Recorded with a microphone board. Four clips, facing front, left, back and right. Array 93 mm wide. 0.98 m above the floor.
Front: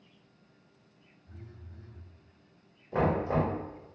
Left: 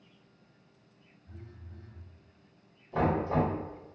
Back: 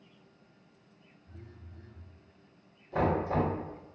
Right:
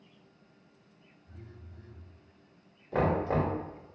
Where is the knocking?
65° right, 1.6 m.